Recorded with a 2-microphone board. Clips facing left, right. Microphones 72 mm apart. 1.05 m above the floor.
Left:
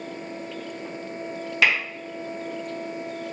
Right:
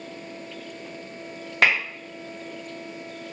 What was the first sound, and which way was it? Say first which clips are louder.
Tapping: right 1 dB; 40° right (ahead or behind).